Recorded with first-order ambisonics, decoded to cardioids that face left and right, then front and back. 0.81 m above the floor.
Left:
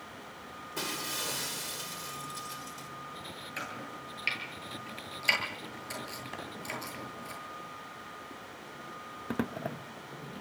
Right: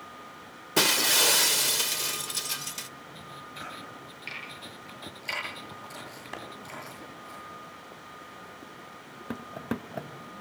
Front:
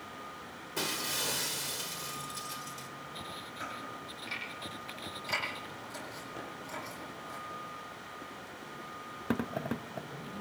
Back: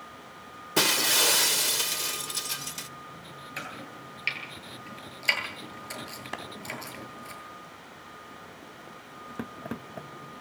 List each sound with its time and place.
0.8 s breaking glass: 130° right, 1.1 m
3.6 s chopping: 150° left, 9.5 m
6.3 s a clap: 170° right, 5 m